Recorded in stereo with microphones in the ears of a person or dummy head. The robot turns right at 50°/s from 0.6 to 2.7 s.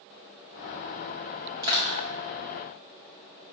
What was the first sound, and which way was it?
Crushing, 15° right (ahead or behind).